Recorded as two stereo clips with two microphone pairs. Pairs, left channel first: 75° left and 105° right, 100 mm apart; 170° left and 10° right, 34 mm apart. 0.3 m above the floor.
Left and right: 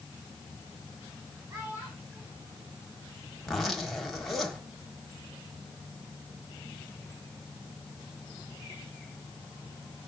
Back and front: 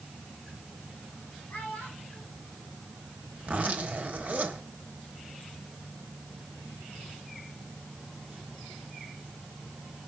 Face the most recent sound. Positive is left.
turn(degrees=-15)